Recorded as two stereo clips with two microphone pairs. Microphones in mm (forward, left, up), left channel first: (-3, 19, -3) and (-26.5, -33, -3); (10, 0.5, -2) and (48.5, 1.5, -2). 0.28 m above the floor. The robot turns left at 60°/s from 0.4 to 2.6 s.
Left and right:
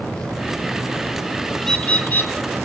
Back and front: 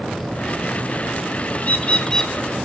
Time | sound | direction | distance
1.6 | a bird | 145° left | 2 m